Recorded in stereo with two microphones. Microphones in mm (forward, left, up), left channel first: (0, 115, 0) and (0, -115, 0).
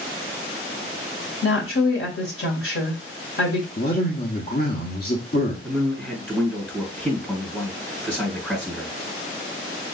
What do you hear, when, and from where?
1.4 s a woman speaking: 70° left (ahead or behind), 2.5 m
3.8 s a man speaking: 45° left (ahead or behind), 1.2 m
5.6 s a man speaking: 5° left (ahead or behind), 3 m